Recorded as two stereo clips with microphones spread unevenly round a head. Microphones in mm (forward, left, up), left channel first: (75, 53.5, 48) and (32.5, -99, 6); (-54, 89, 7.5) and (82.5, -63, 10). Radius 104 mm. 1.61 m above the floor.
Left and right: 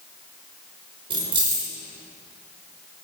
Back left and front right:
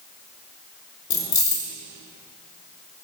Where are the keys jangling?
175° right, 0.8 m.